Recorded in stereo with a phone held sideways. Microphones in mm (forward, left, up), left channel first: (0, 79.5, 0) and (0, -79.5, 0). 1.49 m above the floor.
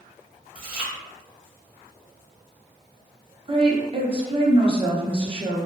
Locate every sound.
0.6 s chewing: 65° right (ahead or behind), 0.8 m
3.5 s a woman speaking: 35° right (ahead or behind), 0.7 m